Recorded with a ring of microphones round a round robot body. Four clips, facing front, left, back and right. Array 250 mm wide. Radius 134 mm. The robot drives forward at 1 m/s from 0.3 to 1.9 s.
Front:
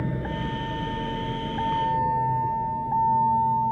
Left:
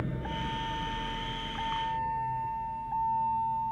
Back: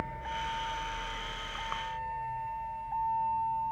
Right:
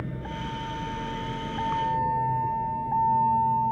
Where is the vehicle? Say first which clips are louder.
Even, front 7 dB; 5° left; by 3.7 s 40° right.